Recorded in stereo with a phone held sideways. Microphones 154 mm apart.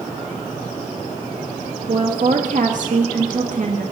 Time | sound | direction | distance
1.9 | a woman speaking | 55° right (ahead or behind) | 1.7 m